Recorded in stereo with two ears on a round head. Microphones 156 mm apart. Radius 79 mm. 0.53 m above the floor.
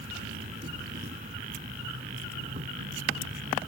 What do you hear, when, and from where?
0.0 s an insect: 40° right (ahead or behind)